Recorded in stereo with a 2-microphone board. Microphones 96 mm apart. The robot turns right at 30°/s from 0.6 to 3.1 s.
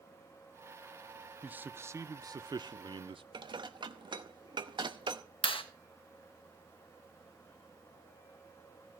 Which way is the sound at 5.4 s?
70° left (ahead or behind).